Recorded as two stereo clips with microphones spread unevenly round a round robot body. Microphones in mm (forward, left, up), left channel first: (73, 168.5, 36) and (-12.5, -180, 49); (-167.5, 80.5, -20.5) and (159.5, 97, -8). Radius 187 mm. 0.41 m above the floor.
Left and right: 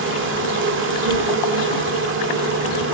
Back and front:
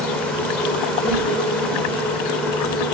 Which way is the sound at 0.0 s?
95° right.